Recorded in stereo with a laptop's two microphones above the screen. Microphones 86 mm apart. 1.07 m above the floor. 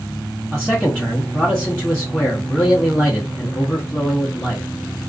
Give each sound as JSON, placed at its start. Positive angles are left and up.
{"t": 0.5, "sound": "a man speaking", "side_deg": 10, "distance_m": 0.9}